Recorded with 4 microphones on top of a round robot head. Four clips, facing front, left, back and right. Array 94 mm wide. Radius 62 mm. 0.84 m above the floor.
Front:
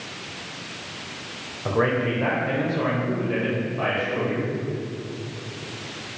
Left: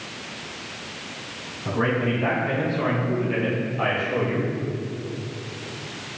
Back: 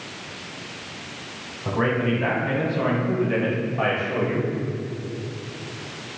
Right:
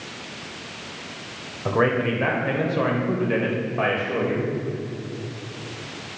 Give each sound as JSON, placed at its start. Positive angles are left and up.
{"t": 1.6, "sound": "a man speaking", "azimuth_deg": -65, "distance_m": 3.5}